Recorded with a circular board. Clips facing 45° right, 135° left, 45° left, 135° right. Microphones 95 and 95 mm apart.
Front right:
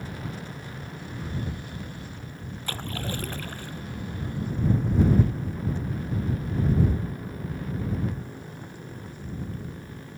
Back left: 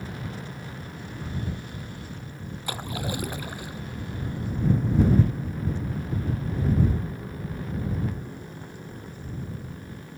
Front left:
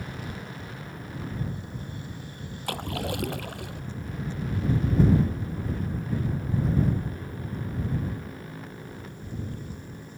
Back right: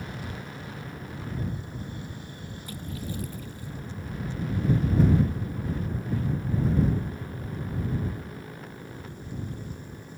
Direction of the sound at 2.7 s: 55° left.